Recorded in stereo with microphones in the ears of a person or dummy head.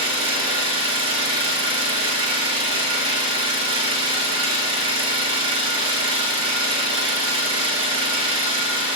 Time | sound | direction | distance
0.0 | an engine running | 30° right (ahead or behind) | 0.7 m